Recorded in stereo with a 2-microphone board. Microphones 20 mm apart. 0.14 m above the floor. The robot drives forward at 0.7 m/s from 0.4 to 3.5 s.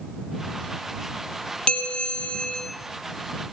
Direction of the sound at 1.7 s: 70° left (ahead or behind).